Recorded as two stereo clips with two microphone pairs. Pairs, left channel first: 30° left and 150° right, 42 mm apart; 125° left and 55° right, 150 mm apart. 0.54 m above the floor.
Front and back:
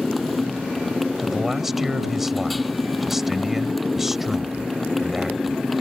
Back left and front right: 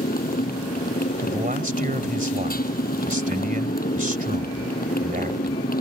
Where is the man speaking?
70° right.